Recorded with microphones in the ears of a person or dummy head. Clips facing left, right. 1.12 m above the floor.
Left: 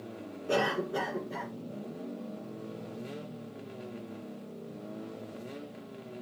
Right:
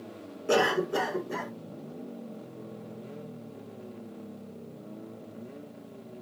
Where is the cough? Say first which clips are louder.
Right 5 dB; 75° right (ahead or behind), 3 m.